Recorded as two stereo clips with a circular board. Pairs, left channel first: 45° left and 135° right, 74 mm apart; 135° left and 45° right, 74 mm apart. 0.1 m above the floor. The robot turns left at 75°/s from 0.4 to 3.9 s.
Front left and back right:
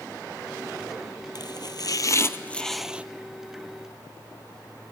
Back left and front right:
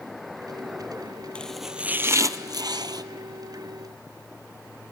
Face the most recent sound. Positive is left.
turn(degrees=-130)